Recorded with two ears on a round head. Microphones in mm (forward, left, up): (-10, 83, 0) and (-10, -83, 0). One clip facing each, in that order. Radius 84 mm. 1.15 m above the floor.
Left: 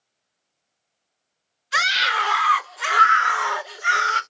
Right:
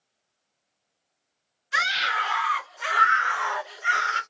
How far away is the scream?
About 1.4 m.